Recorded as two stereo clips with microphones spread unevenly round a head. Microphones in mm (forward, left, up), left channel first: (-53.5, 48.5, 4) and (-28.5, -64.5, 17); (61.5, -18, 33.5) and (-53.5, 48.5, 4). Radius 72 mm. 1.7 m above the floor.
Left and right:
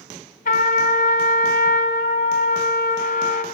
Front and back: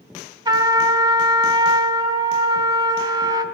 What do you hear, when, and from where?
0.5 s a trumpet: 85° left, 2.5 m